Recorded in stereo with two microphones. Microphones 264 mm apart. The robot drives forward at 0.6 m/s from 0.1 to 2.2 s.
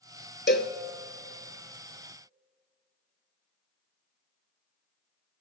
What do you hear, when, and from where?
0.5 s a cowbell: 40° left (ahead or behind), 0.8 m; by 0.7 s 50° left (ahead or behind), 0.7 m